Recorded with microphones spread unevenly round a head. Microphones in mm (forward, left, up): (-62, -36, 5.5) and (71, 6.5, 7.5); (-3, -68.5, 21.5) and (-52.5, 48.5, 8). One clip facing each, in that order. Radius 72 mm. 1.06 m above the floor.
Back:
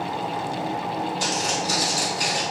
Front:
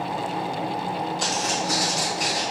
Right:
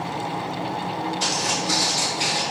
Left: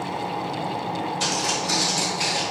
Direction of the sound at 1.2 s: 130° left.